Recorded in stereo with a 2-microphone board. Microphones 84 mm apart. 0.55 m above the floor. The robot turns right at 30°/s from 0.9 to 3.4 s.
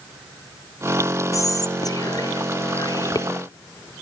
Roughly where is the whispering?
Ahead left.